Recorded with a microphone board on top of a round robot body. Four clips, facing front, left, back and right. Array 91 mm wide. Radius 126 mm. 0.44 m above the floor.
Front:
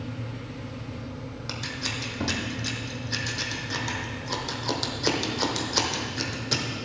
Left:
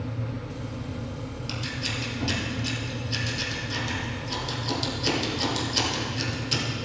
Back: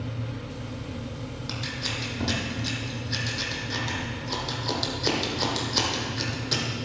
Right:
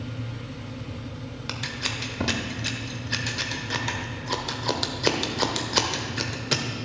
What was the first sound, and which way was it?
Scissors, 80° right.